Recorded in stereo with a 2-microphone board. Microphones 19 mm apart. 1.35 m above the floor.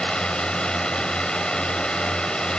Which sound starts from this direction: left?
A drone, at 0.0 s.